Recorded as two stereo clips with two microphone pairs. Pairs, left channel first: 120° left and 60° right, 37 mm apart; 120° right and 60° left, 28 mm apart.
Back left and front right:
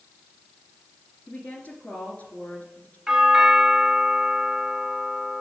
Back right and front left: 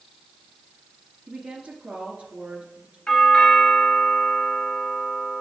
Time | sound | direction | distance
1.3 | a woman speaking | 95° left | 2.5 m
3.1 | a doorbell | 115° right | 1.5 m